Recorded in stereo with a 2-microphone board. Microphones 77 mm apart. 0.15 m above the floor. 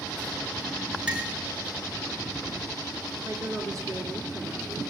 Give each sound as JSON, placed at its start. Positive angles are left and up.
{"t": 1.1, "sound": "a clink", "side_deg": -15, "distance_m": 2.0}
{"t": 3.2, "sound": "a woman speaking", "side_deg": -45, "distance_m": 3.0}